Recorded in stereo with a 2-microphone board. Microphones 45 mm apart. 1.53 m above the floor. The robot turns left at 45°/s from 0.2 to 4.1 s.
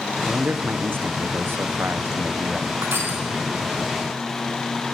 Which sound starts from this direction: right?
Crushing, at 2.8 s.